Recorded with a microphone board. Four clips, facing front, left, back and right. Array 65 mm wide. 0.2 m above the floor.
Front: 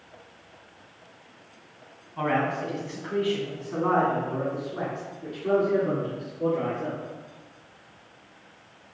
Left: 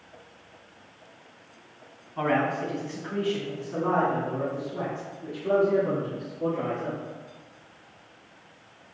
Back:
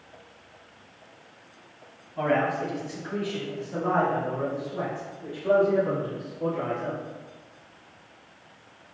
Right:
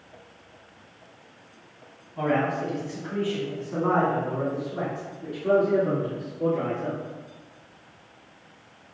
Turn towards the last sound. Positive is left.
turn(degrees=-55)